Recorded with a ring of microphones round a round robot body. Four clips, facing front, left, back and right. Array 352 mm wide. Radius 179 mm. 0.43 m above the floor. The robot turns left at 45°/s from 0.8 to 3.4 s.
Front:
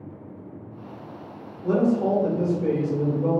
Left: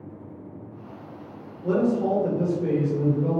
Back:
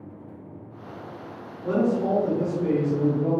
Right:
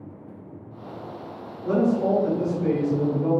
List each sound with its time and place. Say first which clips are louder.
1.6 s a man speaking: right 1 dB, front 2 dB; 25° left, 1.7 m; by 3.4 s 55° right, 1.7 m